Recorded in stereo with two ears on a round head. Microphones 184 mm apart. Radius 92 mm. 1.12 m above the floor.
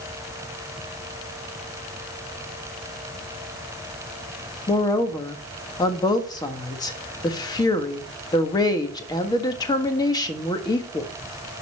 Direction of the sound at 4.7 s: 20° left (ahead or behind).